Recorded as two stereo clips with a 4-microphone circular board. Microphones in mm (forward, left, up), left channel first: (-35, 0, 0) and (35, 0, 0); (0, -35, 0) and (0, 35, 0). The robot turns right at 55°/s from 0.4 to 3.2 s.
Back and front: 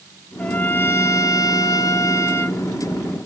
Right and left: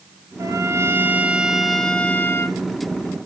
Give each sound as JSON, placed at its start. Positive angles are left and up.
{"t": 0.4, "sound": "a trumpet", "azimuth_deg": 110, "distance_m": 1.2}